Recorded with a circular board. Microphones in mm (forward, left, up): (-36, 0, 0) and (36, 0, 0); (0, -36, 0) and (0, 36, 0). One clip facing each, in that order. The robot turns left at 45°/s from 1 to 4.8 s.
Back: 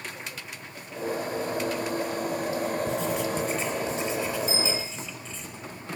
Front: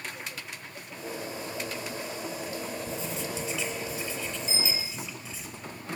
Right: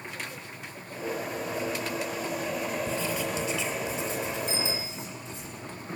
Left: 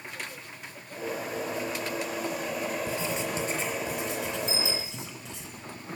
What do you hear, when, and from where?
2.9 s writing: 170° left, 5.5 m; by 5.5 s 85° left, 5.5 m
4.5 s a bicycle bell: 60° right, 3 m; by 4.9 s 75° right, 3 m